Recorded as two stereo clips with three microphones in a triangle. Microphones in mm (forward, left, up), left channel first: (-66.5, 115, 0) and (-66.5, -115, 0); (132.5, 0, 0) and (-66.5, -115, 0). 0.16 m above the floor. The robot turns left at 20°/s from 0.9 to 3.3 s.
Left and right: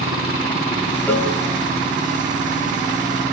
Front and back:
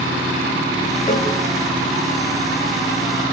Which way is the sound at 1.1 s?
25° left.